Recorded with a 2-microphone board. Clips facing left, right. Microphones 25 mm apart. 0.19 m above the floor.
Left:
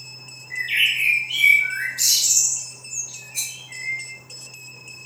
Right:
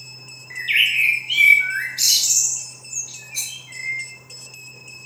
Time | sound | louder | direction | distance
0.5 | a bird | right 2 dB | 40° right (ahead or behind) | 1.0 m
3.3 | a rattle | right 1 dB | 50° right (ahead or behind) | 1.8 m